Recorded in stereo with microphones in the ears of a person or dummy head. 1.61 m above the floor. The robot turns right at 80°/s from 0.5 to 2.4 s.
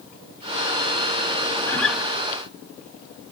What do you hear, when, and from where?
1.7 s a guitar: 15° left (ahead or behind), 1.0 m; by 2.0 s 5° right (ahead or behind), 1.0 m